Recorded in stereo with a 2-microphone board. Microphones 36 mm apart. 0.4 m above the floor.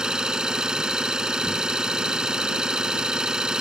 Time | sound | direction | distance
0.0 | an engine running | 20° right (ahead or behind) | ?